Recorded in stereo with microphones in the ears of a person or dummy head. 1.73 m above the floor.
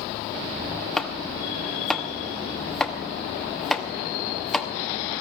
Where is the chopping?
Centre (ahead or behind), 1.1 m.